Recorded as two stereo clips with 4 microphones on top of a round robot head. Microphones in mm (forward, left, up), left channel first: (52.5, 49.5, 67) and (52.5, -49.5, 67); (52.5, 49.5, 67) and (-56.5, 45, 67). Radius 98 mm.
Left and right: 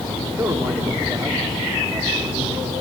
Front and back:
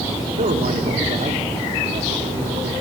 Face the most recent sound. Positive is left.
turn(degrees=-170)